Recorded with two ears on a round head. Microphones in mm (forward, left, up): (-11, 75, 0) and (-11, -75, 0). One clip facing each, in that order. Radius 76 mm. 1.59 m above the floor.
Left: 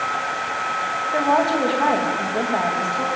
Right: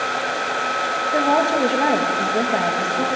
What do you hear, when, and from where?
1.1 s a woman speaking: 20° right (ahead or behind), 2.5 m